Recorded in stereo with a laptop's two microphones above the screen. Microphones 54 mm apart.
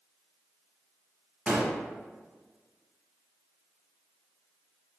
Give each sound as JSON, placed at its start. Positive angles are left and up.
{"t": 1.5, "sound": "a gunshot", "side_deg": -30, "distance_m": 0.9}